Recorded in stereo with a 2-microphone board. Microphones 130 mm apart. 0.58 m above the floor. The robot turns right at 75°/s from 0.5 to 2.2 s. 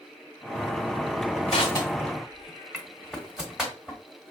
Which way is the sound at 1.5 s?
50° left (ahead or behind).